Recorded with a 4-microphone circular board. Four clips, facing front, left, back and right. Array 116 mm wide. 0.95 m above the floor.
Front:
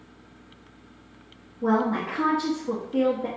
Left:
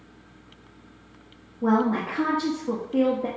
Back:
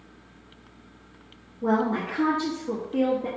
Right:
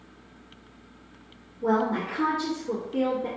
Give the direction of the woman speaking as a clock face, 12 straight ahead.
9 o'clock.